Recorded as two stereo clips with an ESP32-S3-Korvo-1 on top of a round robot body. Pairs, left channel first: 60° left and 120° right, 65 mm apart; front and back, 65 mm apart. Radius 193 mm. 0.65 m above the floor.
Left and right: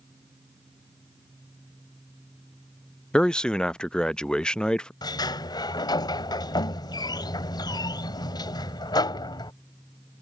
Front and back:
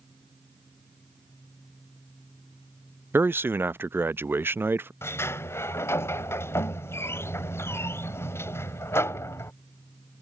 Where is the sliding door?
55° left.